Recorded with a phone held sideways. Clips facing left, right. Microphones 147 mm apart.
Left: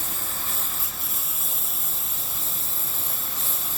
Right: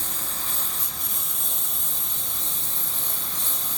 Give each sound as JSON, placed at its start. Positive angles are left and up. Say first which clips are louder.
{"t": 0.0, "sound": "a lawn mower", "louder": "even", "side_deg": 5}